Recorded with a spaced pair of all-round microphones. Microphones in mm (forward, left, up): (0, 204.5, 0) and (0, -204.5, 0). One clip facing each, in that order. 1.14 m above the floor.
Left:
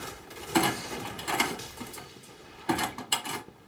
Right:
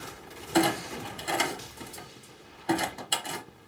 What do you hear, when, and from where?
0.5 s a clunk: 20° left (ahead or behind), 1.4 m